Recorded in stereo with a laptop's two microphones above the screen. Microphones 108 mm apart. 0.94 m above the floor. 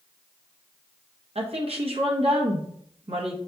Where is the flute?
No flute in this recording.